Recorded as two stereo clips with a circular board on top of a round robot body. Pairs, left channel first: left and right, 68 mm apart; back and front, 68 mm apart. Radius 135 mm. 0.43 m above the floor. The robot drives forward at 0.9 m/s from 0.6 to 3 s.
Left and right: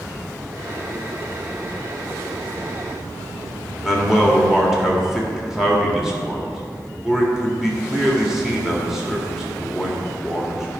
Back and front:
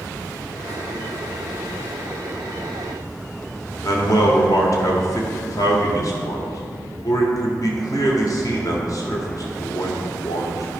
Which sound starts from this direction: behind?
A man speaking, at 3.8 s.